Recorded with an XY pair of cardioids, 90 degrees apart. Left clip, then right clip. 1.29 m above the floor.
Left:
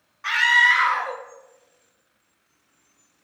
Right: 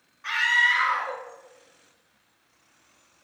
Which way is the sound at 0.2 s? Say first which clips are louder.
Left 5 dB; 60° left.